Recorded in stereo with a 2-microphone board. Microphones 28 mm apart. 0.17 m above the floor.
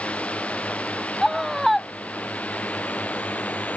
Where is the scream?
5° right (ahead or behind).